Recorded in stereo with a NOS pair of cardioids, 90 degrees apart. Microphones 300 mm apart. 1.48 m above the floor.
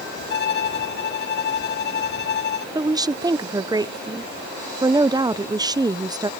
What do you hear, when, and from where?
0.3 s a violin: 35° left
2.8 s a woman speaking: 15° right